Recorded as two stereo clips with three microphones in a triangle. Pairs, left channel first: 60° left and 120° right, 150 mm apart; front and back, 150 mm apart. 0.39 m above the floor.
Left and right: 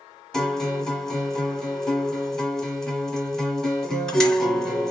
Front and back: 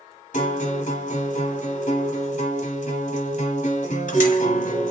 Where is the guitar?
25° right, 1.3 m.